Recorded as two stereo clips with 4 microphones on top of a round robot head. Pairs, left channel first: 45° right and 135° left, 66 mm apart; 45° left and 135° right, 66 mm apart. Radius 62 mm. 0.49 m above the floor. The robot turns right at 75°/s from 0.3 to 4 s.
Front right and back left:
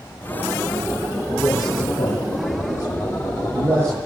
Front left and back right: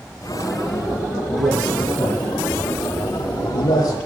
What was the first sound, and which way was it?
A man speaking, 110° right.